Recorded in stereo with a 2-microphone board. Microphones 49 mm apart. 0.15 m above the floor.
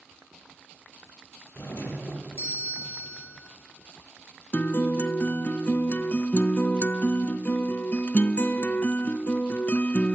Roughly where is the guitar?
Left.